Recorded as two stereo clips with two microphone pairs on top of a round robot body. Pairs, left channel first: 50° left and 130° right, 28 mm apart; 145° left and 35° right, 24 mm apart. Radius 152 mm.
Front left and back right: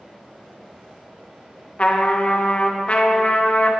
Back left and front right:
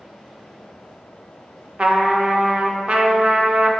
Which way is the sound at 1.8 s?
10° left.